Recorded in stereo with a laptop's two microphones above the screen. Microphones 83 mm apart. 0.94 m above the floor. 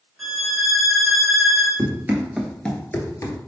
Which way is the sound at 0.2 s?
5° right (ahead or behind).